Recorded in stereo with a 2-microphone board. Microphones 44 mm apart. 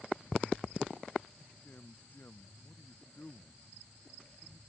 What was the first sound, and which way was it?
A man speaking, 50° left (ahead or behind).